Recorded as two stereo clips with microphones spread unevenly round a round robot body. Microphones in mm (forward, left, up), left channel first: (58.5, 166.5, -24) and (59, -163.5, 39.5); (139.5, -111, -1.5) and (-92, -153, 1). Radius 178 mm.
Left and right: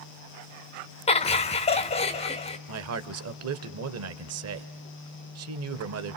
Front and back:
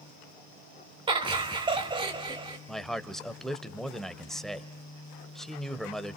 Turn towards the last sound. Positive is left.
turn(degrees=-75)